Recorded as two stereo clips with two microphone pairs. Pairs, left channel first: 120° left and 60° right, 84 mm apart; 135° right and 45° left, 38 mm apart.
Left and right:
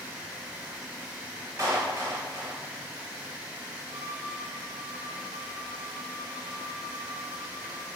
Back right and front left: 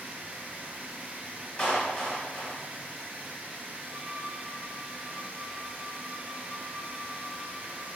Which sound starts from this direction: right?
A clap, at 1.6 s.